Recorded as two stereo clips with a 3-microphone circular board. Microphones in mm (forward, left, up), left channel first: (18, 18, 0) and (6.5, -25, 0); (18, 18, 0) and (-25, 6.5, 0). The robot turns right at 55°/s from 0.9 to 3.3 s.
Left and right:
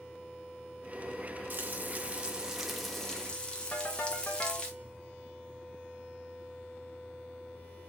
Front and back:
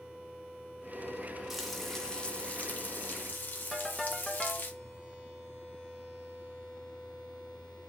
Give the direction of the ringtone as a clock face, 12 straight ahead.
9 o'clock.